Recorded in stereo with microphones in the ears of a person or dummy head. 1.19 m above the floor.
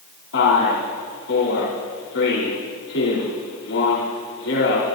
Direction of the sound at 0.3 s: 85° left.